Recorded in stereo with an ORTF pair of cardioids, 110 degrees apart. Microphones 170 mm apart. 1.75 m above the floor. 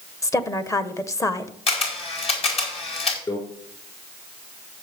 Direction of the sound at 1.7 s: 35° left.